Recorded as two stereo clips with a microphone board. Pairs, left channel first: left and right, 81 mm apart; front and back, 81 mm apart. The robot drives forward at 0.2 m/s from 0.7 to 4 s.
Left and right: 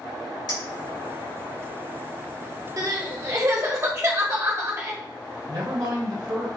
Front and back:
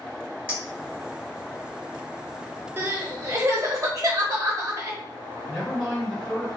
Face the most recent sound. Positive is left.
turn(degrees=-90)